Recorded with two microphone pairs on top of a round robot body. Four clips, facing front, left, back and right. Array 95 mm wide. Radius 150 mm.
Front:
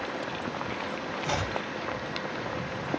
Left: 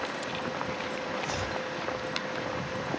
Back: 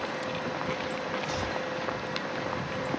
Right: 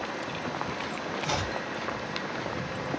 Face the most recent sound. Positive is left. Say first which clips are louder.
# right 2 dB, front 1 dB
turn(degrees=-40)